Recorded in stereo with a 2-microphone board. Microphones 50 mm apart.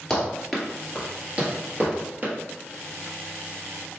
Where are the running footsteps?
5° left (ahead or behind), 1.3 m; by 2.3 s 40° right (ahead or behind), 1.6 m.